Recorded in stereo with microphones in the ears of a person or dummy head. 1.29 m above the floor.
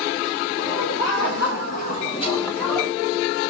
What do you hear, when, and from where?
0.6 s laughter: 75° left (ahead or behind), 2.5 m; by 2.9 s 5° right (ahead or behind), 1.1 m